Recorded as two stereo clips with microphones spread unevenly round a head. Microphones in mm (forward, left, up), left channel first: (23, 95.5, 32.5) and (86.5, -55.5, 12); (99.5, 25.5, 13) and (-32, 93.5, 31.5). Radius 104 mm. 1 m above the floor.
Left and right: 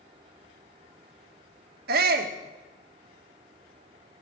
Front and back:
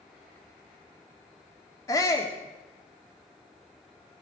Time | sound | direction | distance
1.9 | a shout | 100° right | 2.5 m